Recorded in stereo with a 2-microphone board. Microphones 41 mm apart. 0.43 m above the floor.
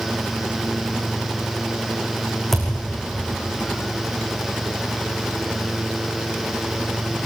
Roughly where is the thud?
Centre.